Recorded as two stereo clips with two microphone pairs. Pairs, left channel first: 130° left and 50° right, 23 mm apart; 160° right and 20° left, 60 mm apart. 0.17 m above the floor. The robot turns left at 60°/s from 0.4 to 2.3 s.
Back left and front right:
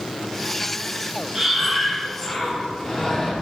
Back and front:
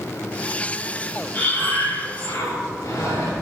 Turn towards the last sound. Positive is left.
turn(degrees=-160)